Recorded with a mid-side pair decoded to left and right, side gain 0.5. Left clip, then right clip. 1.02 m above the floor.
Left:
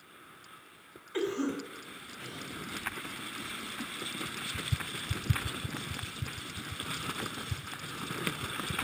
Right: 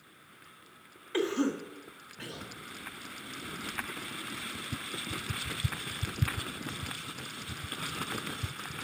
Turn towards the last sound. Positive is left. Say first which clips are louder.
# right 2 dB
turn(degrees=-55)